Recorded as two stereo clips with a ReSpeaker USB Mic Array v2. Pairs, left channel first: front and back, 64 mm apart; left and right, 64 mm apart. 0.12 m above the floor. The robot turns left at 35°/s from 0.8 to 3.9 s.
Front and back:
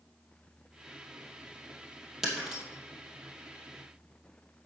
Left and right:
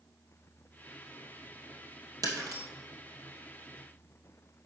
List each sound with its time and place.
2.2 s breaking glass: 95° right, 2.5 m; by 2.6 s 110° right, 2.5 m